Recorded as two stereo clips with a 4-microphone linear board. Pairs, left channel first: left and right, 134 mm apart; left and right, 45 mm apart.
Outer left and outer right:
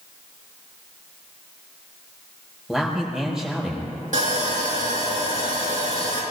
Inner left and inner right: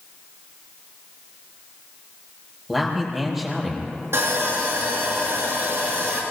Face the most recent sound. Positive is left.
turn(degrees=-70)  # may be behind; listen again after turning